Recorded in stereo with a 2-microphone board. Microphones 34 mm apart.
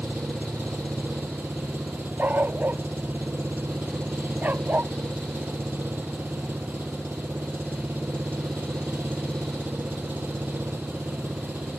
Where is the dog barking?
60° right (ahead or behind).